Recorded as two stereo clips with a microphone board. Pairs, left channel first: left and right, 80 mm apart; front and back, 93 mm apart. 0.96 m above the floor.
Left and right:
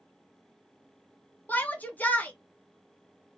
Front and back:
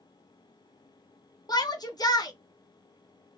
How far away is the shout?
About 0.8 m.